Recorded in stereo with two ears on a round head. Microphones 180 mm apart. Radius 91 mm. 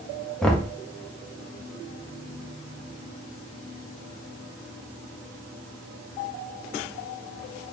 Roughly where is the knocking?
Centre.